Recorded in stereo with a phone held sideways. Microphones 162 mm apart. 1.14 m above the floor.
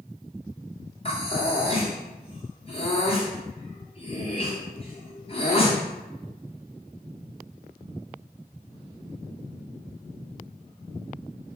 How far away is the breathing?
About 0.7 m.